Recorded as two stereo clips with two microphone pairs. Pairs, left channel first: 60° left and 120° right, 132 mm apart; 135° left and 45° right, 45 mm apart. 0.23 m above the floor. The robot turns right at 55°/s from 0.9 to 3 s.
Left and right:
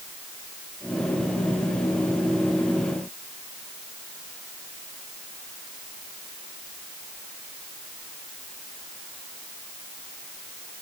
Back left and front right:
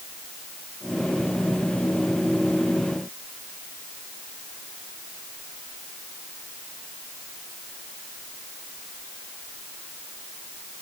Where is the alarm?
I don't hear an alarm.